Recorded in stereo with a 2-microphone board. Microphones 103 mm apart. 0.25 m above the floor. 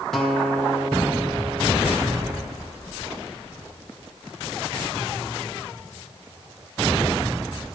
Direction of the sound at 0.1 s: 5° left (ahead or behind).